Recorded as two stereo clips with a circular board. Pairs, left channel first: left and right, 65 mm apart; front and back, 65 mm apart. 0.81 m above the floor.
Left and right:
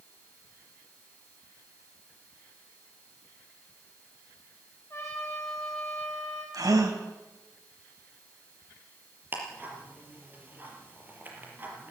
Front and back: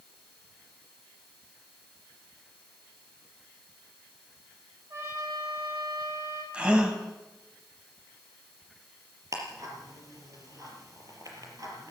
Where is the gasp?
105° right, 3 m.